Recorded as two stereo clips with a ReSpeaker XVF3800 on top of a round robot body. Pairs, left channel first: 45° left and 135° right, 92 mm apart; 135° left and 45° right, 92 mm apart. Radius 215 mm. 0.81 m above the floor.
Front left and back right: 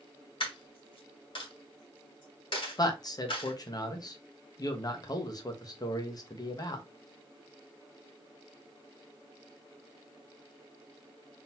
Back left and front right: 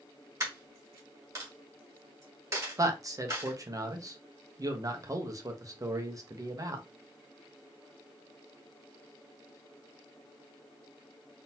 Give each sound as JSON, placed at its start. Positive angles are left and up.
{"t": 0.4, "sound": "a dropped coin", "azimuth_deg": 15, "distance_m": 2.0}
{"t": 2.8, "sound": "a man speaking", "azimuth_deg": 5, "distance_m": 1.4}